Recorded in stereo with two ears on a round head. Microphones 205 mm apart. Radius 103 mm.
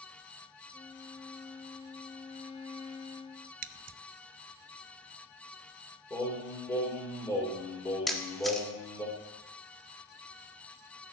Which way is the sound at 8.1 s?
Centre (ahead or behind).